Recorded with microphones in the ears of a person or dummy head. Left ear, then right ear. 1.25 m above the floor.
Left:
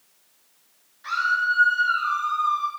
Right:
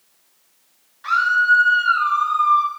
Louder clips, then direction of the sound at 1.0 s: Right 7 dB; 35° right (ahead or behind).